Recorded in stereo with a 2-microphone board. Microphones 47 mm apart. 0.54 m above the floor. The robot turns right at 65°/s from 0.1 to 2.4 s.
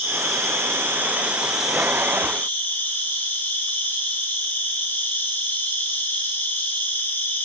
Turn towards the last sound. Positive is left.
turn(degrees=40)